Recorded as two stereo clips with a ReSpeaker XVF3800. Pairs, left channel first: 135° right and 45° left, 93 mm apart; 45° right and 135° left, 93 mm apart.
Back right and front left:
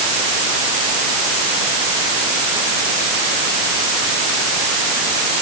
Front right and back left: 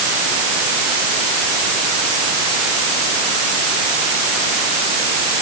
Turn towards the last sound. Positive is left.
No sound to turn to.